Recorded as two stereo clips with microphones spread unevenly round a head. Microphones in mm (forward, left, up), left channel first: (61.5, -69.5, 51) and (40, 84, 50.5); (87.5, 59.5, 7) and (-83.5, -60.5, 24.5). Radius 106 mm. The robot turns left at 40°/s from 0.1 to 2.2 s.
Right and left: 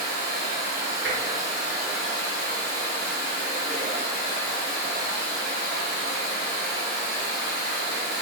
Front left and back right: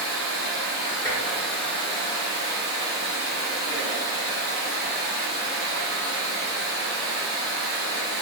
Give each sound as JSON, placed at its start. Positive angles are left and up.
{"t": 0.0, "sound": "running water", "azimuth_deg": 80, "distance_m": 1.9}
{"t": 1.0, "sound": "tapping", "azimuth_deg": 110, "distance_m": 1.2}